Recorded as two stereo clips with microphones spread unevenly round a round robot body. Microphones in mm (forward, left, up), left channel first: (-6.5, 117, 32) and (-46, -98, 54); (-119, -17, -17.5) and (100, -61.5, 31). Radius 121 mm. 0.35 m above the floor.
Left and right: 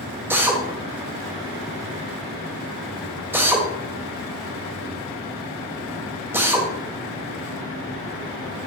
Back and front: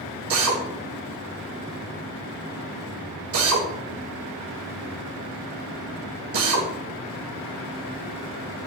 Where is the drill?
20° right, 1.8 m.